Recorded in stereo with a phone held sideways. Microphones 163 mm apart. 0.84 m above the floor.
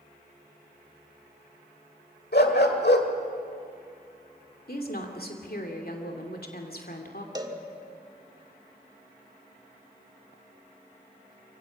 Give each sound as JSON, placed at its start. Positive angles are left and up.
{"t": 2.3, "sound": "a dog barking", "side_deg": 85, "distance_m": 1.6}
{"t": 4.7, "sound": "a woman speaking", "side_deg": 70, "distance_m": 2.5}
{"t": 7.3, "sound": "a cowbell", "side_deg": -25, "distance_m": 1.4}